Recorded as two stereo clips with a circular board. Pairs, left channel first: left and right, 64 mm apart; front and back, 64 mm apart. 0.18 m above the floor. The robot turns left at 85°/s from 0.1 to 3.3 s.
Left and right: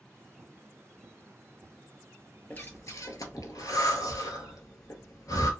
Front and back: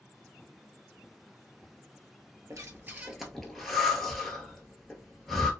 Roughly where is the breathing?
Behind left.